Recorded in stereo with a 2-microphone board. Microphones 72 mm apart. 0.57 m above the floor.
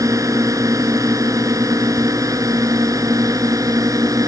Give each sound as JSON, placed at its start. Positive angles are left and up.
{"t": 0.0, "sound": "a drone", "side_deg": -50}